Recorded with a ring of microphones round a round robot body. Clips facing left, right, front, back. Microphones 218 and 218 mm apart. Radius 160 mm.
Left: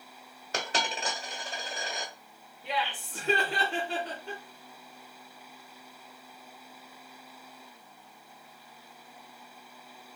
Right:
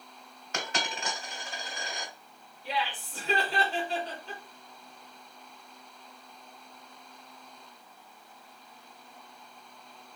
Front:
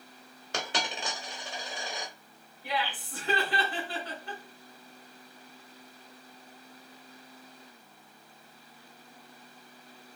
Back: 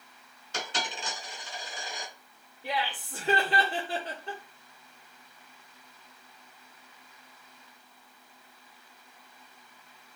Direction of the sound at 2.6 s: 120° left.